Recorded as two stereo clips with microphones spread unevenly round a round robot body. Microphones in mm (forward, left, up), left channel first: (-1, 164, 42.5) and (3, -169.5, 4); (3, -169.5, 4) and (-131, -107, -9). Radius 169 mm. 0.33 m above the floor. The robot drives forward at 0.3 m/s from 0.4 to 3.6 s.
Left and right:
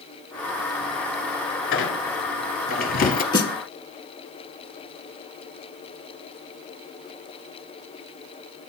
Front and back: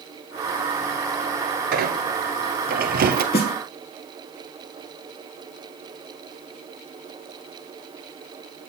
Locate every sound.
1.7 s a squeak: 145° left, 1.0 m; by 3.2 s 155° left, 1.4 m
3.3 s a snare drum: 15° left, 0.9 m